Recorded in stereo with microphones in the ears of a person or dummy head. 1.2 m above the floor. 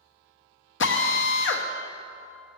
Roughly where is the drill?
Left.